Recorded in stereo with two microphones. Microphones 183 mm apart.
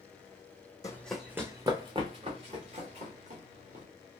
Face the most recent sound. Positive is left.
turn(degrees=-45)  # may be behind; listen again after turning